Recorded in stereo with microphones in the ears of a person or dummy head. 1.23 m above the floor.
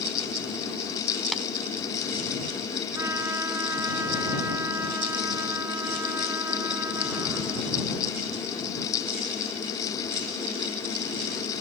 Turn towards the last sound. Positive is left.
turn(degrees=-15)  # may be behind; listen again after turning